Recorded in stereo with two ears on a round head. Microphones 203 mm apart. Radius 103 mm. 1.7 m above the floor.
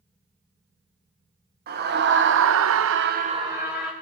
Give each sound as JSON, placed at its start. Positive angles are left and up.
{"t": 1.7, "sound": "a scream", "side_deg": -45, "distance_m": 1.6}